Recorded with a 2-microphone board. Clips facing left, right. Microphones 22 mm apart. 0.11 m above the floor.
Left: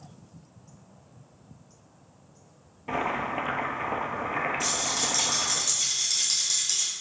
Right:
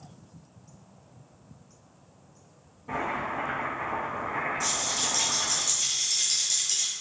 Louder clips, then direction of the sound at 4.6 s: Left 1 dB; 25° left (ahead or behind).